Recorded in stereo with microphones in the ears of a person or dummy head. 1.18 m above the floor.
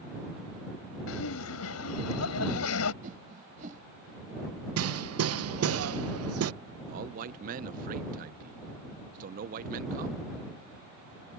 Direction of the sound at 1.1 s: 75° left (ahead or behind).